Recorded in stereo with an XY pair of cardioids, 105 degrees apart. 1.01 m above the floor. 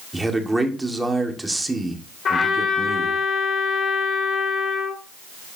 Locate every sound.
0.1 s a man speaking: 10° right, 2 m
2.2 s a trumpet: 50° left, 2.5 m